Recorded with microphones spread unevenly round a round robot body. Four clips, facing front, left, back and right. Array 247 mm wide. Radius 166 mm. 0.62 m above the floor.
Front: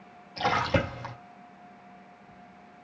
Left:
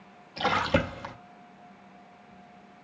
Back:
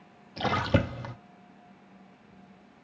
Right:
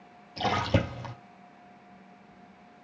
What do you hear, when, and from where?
0.4 s a splash: 160° right, 0.6 m